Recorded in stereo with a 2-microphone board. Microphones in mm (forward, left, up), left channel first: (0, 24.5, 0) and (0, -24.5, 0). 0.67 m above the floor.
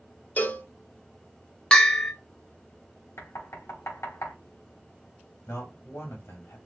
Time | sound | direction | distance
0.4 | a cowbell | 35° left (ahead or behind) | 0.5 m
1.7 | a bell | 20° left (ahead or behind) | 0.7 m
3.2 | knocking | 70° left (ahead or behind) | 1.2 m
5.5 | a man speaking | 55° left (ahead or behind) | 1.8 m